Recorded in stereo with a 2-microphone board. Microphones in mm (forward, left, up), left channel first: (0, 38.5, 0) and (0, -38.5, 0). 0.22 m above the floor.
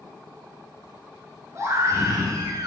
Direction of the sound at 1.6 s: 40° right (ahead or behind).